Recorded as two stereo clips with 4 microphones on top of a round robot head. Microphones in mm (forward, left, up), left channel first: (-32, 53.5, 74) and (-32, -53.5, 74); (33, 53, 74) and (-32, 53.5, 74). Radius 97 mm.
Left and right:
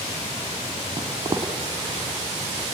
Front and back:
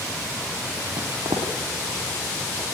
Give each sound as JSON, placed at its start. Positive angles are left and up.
{"t": 1.0, "sound": "footsteps", "azimuth_deg": -155, "distance_m": 1.4}